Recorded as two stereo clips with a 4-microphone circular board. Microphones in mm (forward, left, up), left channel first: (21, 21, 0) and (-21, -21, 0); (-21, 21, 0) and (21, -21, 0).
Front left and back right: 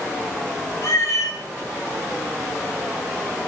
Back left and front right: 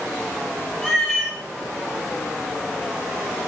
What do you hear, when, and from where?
0.8 s a cat meowing: 50° left, 9.5 m